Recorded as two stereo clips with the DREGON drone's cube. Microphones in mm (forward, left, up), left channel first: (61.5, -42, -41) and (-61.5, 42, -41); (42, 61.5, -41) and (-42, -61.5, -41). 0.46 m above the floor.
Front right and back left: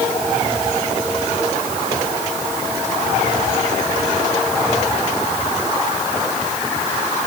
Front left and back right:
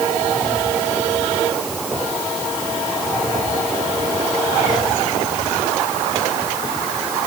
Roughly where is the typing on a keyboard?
No typing on a keyboard in this recording.